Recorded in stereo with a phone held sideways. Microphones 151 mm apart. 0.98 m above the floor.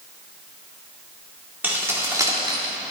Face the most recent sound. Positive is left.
turn(degrees=-35)  # may be behind; listen again after turning